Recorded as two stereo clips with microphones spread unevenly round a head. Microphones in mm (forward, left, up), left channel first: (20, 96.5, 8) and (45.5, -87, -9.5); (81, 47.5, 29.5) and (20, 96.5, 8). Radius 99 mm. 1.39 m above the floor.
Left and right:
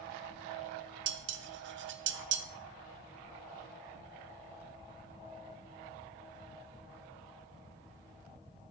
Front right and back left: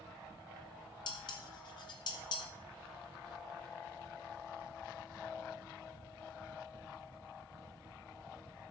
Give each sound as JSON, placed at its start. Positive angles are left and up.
{"t": 1.1, "sound": "dishes clattering", "azimuth_deg": -55, "distance_m": 1.1}